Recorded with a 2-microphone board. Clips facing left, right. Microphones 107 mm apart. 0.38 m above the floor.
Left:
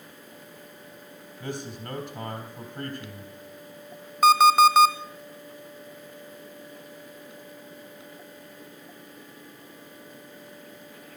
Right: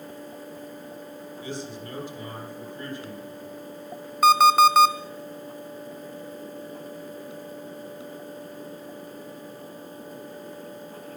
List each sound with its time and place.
1.4 s a man speaking: 65° left (ahead or behind), 3 m
4.2 s an alarm clock: centre (ahead or behind), 0.8 m